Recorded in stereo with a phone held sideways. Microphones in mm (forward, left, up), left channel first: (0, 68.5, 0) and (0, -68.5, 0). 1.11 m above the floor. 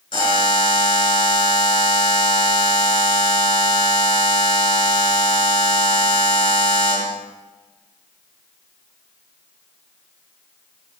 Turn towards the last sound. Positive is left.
turn(degrees=35)  # may be behind; listen again after turning